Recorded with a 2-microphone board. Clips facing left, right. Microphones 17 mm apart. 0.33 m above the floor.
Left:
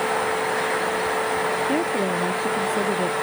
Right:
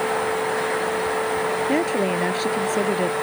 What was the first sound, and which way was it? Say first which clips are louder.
A woman speaking: right 1 dB; 70° right (ahead or behind).